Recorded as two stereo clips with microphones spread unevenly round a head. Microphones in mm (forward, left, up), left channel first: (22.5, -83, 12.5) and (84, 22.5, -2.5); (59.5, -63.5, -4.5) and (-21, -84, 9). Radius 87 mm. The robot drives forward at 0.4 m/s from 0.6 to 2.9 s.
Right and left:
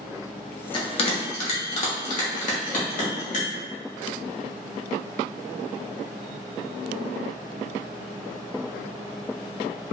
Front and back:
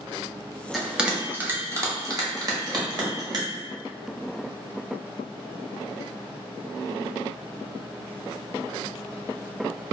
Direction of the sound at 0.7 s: 85° right.